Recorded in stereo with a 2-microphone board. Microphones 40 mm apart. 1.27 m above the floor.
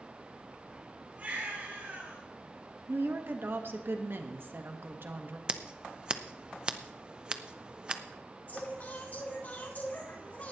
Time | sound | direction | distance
1.2 | a baby crying | 35° right (ahead or behind) | 6 m
2.9 | a woman speaking | 55° right (ahead or behind) | 1.3 m
5.5 | scissors | 25° right (ahead or behind) | 0.7 m
8.5 | singing | 45° left (ahead or behind) | 6 m